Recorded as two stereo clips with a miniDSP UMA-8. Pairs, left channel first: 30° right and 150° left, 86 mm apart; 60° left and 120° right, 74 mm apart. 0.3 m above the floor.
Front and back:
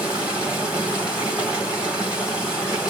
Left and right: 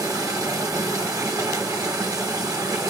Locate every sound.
0.0 s running water: 135° right, 1.8 m